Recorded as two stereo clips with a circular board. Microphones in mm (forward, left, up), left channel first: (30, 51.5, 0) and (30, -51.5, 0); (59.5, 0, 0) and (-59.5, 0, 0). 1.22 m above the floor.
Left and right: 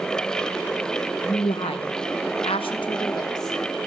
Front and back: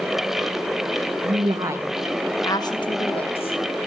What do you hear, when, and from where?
1.2 s a woman speaking: 140° left, 0.6 m; by 3.9 s 30° left, 1.4 m